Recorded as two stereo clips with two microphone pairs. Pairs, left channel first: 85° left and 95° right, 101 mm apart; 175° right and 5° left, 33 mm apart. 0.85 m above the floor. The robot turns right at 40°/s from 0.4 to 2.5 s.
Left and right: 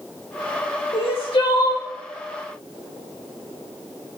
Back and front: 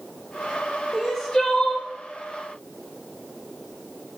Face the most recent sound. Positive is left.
turn(degrees=155)